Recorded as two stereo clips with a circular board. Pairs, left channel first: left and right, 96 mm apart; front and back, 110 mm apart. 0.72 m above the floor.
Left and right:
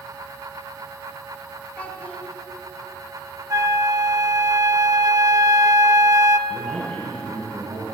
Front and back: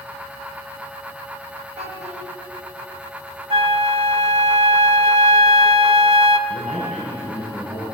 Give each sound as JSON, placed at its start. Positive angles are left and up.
{"t": 1.8, "sound": "a child speaking", "azimuth_deg": 165, "distance_m": 4.0}
{"t": 3.5, "sound": "a flute", "azimuth_deg": -145, "distance_m": 0.9}
{"t": 6.5, "sound": "a man speaking", "azimuth_deg": -85, "distance_m": 6.0}